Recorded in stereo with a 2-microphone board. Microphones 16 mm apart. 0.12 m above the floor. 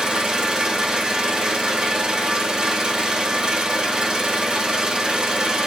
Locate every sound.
0.0 s an engine running: 60° right (ahead or behind), 1.8 m